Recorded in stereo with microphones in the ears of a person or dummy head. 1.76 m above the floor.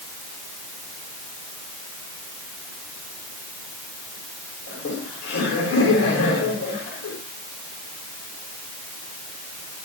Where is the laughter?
80° left, 7 m.